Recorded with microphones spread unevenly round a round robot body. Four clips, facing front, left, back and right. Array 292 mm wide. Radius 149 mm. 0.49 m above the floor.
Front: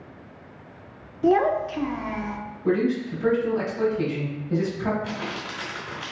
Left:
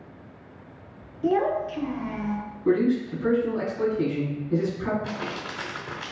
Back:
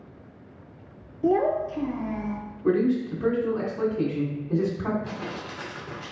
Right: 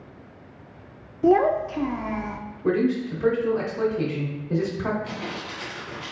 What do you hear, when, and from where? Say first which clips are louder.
1.2 s a child speaking: right 5 dB, front 2 dB; 70° right, 0.6 m
2.6 s a man speaking: even, back 1 dB; 115° right, 1.8 m
5.0 s crumpling: left 1 dB, front 2 dB; 70° left, 2 m